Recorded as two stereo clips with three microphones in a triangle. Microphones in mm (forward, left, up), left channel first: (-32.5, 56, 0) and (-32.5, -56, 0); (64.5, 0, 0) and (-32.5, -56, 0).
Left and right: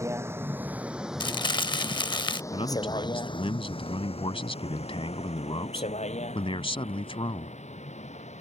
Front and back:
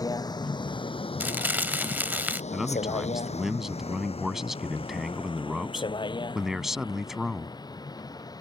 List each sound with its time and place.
0.0 s a vehicle: 25° right; by 8.4 s 85° left
1.2 s crumpling: 140° left
2.5 s a man speaking: 125° left